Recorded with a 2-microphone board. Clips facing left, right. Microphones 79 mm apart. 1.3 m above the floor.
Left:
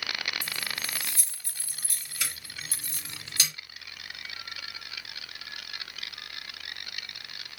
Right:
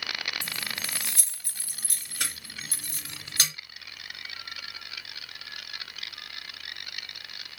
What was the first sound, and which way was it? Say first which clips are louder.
Keys jangling: even; 65° right (ahead or behind).